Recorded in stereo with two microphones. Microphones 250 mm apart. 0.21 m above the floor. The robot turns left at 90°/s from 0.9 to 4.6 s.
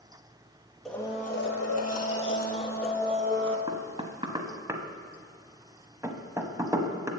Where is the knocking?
20° right (ahead or behind), 0.8 m; by 7.1 s 10° right (ahead or behind), 0.8 m.